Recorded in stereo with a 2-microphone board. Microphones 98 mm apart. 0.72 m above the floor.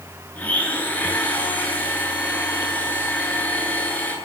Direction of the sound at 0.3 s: 15° left (ahead or behind).